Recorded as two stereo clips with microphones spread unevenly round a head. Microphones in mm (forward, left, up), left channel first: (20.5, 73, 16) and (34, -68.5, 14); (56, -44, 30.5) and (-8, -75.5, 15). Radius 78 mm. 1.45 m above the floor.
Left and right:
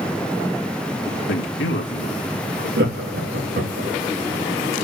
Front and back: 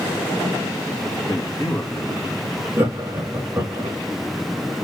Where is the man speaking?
100° left, 1.9 m.